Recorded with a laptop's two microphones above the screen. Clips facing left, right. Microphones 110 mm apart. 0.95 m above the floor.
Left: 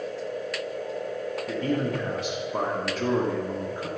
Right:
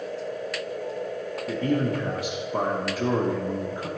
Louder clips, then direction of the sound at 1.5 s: Right 3 dB; 5° right (ahead or behind).